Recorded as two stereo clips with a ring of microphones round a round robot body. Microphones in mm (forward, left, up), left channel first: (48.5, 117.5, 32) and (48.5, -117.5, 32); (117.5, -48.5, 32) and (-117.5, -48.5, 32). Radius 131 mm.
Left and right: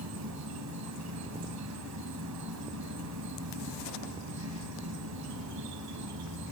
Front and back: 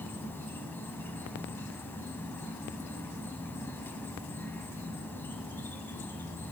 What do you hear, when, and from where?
0.0 s an insect: 80° right, 1.3 m